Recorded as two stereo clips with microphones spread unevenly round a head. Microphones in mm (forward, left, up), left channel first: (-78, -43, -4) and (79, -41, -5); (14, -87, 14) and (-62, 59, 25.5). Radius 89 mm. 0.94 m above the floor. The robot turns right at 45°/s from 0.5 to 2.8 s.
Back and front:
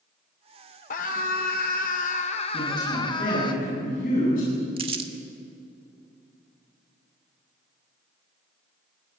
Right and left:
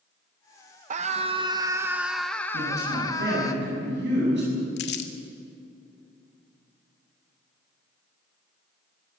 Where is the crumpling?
55° right, 1.7 m.